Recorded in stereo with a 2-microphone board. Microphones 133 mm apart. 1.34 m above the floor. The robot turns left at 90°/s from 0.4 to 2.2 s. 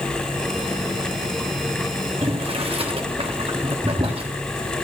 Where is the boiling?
45° right (ahead or behind), 1.5 m.